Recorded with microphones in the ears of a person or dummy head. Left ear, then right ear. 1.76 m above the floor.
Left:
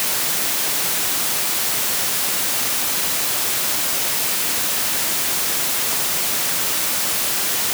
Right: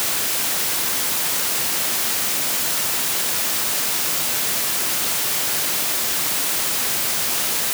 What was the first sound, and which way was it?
Only background noise.